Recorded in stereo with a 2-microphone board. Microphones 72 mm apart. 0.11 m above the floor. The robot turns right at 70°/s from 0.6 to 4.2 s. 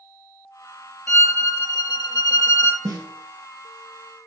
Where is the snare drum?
60° right (ahead or behind), 1.7 m.